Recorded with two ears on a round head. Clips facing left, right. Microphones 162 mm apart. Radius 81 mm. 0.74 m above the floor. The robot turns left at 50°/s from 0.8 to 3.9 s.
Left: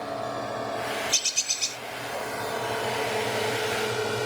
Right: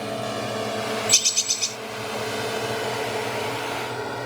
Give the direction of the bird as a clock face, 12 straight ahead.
5 o'clock.